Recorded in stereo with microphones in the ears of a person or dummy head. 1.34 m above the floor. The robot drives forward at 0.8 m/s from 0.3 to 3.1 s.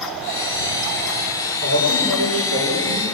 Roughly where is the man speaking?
Right.